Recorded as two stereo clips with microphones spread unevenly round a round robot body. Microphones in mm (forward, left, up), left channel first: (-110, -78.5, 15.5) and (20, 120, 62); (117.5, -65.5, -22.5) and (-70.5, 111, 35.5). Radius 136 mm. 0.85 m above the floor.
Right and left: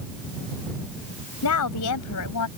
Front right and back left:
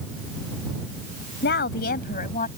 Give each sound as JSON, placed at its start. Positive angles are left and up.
{"t": 1.4, "sound": "a woman speaking", "azimuth_deg": -100}